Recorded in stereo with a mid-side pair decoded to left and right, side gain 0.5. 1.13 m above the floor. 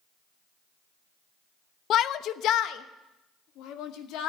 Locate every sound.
1.9 s a shout: 60° left, 0.6 m; by 4.3 s 75° left, 2 m